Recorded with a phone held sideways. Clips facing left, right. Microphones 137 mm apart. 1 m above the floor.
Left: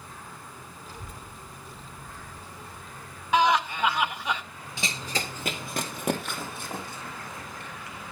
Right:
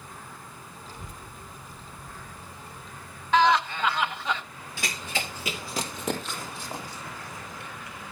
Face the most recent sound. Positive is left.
turn(degrees=55)  # may be behind; listen again after turning